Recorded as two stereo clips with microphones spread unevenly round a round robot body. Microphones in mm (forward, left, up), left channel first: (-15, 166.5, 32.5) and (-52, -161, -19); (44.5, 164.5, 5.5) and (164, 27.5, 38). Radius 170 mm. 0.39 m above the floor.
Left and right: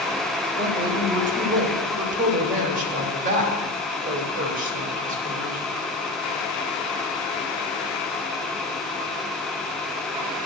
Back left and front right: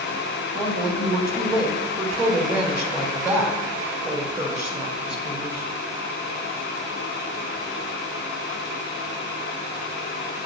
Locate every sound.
0.5 s a woman speaking: 145° right, 1.9 m